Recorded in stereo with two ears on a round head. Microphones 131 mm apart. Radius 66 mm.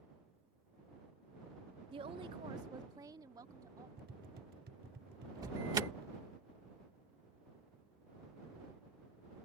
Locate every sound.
1.9 s a woman speaking: 35° right (ahead or behind); by 3.9 s 25° right (ahead or behind)
4.0 s tapping: 65° right (ahead or behind)
5.4 s an alarm: 25° right (ahead or behind)